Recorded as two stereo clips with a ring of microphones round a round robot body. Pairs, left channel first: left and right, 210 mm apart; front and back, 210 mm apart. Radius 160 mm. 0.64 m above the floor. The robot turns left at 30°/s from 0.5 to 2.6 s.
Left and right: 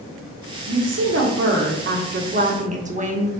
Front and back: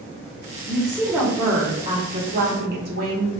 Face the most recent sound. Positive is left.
turn(degrees=-145)